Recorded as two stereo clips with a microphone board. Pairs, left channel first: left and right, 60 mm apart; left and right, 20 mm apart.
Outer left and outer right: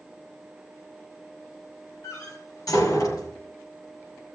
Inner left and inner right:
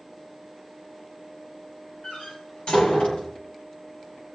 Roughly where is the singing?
I don't hear singing.